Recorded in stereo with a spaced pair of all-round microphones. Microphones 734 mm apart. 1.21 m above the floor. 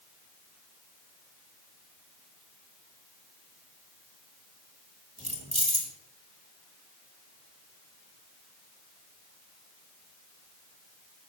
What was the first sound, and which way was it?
Keys jangling, 10° right (ahead or behind).